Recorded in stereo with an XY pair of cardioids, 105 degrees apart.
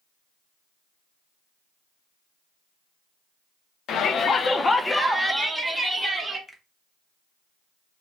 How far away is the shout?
About 0.9 m.